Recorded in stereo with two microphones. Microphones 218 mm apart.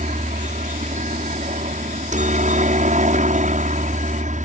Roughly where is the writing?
I don't hear writing.